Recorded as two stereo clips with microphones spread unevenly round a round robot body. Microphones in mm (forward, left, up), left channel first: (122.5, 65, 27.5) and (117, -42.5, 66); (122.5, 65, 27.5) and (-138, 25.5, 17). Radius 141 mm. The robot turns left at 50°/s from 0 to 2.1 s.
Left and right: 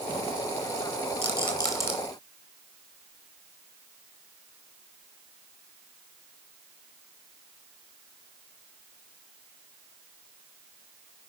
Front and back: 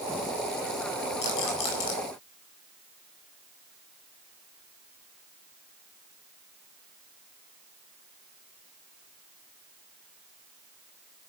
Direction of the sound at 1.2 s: 60° left.